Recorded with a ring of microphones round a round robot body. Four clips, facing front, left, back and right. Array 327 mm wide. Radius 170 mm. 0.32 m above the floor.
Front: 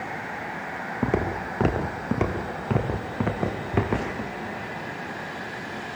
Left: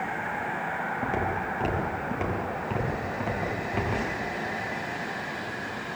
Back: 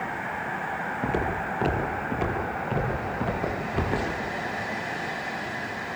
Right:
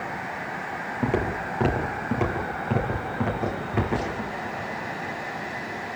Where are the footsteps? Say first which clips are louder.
Right 5 dB, front 3 dB; 25° right, 5 m; by 4.3 s 15° right, 7 m.